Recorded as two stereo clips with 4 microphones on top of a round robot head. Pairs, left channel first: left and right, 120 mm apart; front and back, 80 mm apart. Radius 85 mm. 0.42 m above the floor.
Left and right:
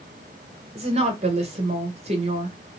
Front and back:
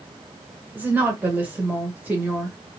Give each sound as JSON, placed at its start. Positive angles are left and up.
{"t": 0.8, "sound": "a woman speaking", "azimuth_deg": -110, "distance_m": 1.4}